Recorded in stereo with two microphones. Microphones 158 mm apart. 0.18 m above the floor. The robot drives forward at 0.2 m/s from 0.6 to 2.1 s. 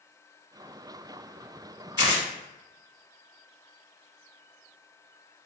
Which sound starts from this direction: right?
Tearing paper, at 2.0 s.